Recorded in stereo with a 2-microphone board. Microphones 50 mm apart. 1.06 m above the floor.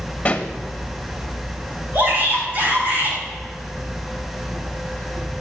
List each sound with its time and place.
0.2 s a pop: 35° left (ahead or behind), 1.8 m
1.9 s a shout: 40° right (ahead or behind), 8 m